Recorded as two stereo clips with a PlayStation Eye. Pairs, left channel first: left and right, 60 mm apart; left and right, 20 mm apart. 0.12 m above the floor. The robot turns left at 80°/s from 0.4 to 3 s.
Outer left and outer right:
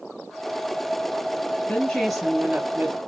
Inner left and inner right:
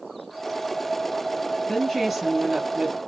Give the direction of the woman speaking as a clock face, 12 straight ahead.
11 o'clock.